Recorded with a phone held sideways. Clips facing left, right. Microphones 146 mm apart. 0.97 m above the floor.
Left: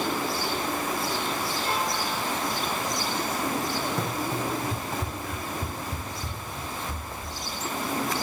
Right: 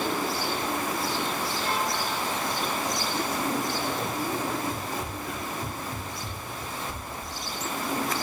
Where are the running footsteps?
65° left (ahead or behind), 3.5 m; by 7.4 s 10° left (ahead or behind), 2.5 m.